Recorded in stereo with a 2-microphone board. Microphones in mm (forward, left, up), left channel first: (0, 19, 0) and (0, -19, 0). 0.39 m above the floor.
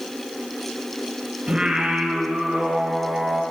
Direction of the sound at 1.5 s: 30° right (ahead or behind).